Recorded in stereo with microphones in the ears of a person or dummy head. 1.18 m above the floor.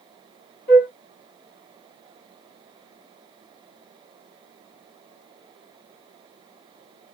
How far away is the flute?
About 1.0 m.